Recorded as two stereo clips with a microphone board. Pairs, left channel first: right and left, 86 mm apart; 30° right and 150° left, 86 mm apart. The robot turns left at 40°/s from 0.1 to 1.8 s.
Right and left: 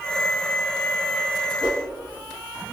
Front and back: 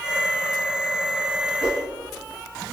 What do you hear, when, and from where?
1.6 s a whoosh: 70° left, 1.5 m; by 1.8 s 65° left, 1.5 m